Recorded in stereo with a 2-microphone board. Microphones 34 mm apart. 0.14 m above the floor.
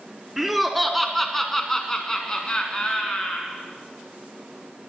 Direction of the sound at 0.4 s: 5° right (ahead or behind).